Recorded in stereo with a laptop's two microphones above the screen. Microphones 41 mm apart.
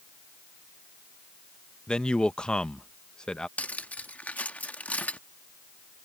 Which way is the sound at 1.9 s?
20° left (ahead or behind).